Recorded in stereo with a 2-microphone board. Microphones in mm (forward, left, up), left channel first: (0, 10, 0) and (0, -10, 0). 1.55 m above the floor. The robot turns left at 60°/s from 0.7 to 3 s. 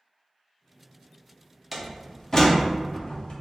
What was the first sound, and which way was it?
A door slam, 5° right (ahead or behind).